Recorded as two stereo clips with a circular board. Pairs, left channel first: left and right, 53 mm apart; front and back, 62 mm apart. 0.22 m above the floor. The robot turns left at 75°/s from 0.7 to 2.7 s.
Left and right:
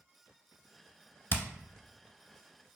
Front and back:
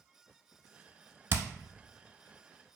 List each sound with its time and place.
1.3 s hammering: 130° left, 0.6 m; by 1.4 s 120° left, 0.6 m